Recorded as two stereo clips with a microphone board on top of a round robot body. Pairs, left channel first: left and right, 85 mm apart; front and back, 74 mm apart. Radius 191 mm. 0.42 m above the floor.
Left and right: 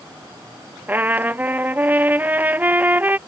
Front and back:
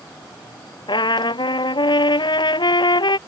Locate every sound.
0.9 s a trumpet: 20° right